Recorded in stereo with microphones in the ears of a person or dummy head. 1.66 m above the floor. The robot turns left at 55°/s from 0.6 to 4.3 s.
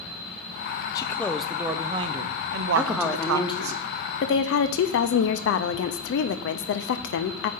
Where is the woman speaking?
170° right, 0.6 m; by 7.5 s 105° left, 0.6 m.